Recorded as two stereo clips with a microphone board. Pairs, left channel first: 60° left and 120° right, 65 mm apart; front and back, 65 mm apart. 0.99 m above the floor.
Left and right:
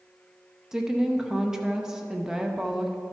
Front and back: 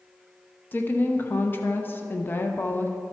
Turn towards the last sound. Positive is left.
turn(degrees=-40)